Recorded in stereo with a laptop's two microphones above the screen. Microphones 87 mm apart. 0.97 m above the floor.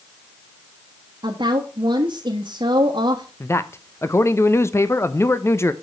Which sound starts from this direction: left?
A man speaking, at 3.4 s.